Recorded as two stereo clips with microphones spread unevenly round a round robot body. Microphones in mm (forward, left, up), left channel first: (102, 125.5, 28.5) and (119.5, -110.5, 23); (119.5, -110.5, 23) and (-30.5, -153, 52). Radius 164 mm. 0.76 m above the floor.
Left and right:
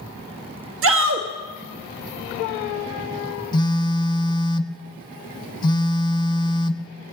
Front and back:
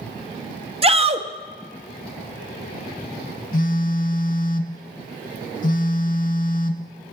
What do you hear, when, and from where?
0.8 s a shout: 110° right, 1.0 m
3.5 s a phone buzzing: 35° left, 0.6 m